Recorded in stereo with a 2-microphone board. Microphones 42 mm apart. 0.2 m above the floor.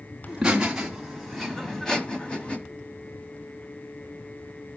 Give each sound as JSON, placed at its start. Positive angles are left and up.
{"t": 0.3, "sound": "laughter", "side_deg": -10, "distance_m": 1.6}